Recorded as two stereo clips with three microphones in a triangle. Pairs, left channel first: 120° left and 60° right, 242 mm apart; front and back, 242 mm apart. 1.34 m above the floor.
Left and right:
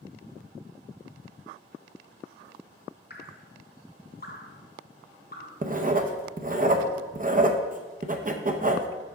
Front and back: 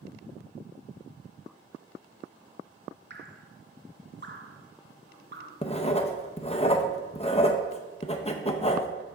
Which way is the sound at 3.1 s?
155° left.